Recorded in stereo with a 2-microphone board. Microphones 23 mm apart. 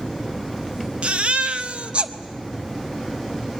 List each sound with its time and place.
1.0 s a baby crying: 55° right (ahead or behind), 0.8 m